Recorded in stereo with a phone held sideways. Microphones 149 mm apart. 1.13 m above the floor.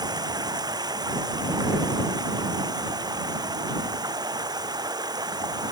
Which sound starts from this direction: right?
Running water, at 0.0 s.